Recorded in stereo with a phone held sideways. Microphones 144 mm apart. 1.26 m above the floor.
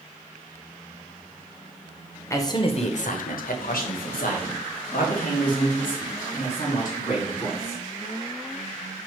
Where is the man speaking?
20° left (ahead or behind), 0.6 m; by 7.8 s 60° left (ahead or behind), 3 m.